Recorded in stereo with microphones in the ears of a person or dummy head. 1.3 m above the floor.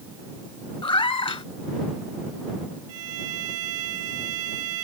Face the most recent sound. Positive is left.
turn(degrees=-85)